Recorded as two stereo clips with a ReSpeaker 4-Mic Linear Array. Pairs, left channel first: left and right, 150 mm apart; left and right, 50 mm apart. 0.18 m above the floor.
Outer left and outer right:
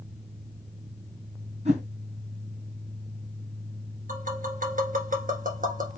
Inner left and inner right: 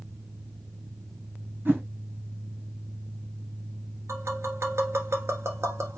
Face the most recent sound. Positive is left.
turn(degrees=-65)  # may be behind; listen again after turning